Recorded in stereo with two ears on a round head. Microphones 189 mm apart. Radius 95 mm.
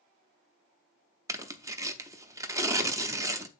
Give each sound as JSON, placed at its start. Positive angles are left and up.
{"t": 1.3, "sound": "tearing paper", "side_deg": -15, "distance_m": 0.7}